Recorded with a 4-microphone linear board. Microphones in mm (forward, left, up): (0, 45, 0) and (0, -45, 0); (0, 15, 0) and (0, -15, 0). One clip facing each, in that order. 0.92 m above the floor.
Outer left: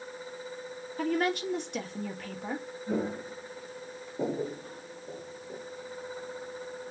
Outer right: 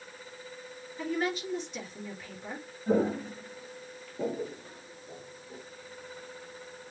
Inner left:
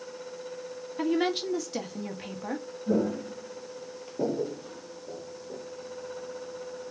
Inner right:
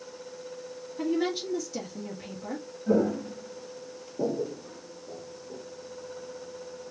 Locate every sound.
1.0 s a woman speaking: 60° left (ahead or behind), 1.5 m
2.9 s footsteps: 40° right (ahead or behind), 1.8 m; by 5.6 s 55° left (ahead or behind), 2.5 m